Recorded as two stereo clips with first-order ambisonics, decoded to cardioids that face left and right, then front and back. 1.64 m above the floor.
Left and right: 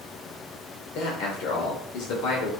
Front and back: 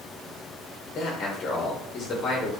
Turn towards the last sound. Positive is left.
turn(degrees=60)